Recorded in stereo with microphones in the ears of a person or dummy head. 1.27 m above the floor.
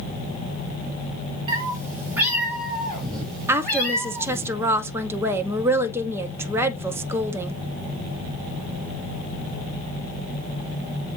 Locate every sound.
1.5 s a cat meowing: 25° right (ahead or behind), 1.8 m; by 4.5 s 15° left (ahead or behind), 3.5 m
3.5 s a woman speaking: 15° right (ahead or behind), 0.7 m